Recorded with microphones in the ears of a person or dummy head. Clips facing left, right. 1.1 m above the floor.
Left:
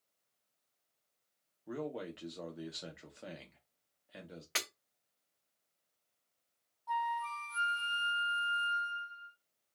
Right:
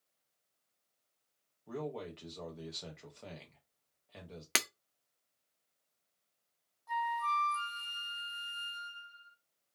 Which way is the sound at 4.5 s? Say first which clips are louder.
Right 6 dB; 60° right (ahead or behind).